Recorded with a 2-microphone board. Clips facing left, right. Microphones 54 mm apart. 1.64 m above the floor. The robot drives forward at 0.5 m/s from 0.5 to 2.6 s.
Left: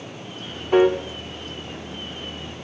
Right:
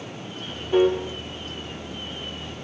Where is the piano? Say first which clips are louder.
Left 3 dB; 55° left (ahead or behind), 1.2 m; by 1.0 s 60° left (ahead or behind), 1.2 m.